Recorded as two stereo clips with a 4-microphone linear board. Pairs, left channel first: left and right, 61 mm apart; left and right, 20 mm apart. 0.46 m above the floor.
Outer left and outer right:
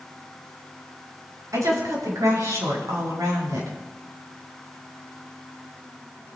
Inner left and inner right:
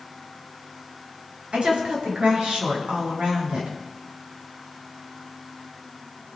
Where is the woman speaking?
65° right (ahead or behind), 6.5 m.